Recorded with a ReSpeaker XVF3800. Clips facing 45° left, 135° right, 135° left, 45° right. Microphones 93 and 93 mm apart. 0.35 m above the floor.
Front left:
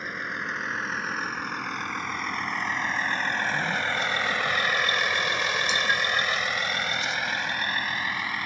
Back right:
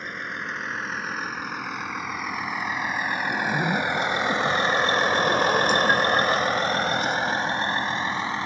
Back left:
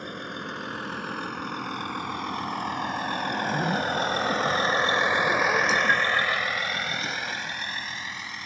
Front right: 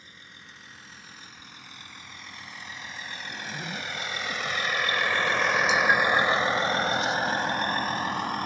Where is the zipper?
175° right.